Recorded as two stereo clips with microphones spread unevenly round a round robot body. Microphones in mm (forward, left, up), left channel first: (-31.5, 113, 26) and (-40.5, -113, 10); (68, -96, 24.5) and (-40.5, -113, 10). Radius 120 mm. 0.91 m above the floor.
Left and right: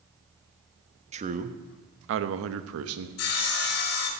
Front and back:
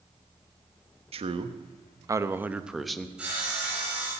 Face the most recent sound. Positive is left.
turn(degrees=100)